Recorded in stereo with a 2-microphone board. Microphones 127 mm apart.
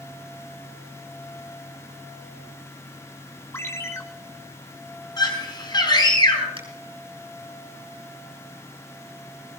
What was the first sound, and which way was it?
A ringtone, 20° left (ahead or behind).